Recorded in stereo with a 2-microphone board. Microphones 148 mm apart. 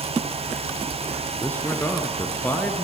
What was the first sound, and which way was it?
A man speaking, 10° left (ahead or behind).